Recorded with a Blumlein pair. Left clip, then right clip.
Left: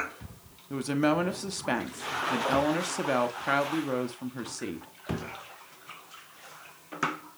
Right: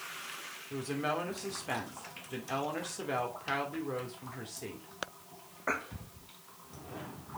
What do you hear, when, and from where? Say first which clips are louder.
0.7 s a woman speaking: left 8 dB; 45° left, 1.3 m